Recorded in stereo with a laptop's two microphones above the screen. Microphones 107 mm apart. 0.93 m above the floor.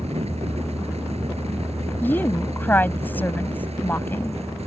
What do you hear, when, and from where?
0.0 s a fan: 75° right (ahead or behind)
2.0 s a woman speaking: 15° left (ahead or behind)